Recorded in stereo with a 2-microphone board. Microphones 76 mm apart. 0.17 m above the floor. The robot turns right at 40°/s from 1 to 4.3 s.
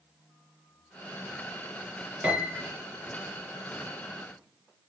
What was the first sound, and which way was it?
A piano, 20° right (ahead or behind).